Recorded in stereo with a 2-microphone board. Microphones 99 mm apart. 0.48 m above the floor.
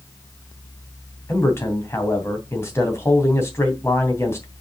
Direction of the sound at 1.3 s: 25° left (ahead or behind).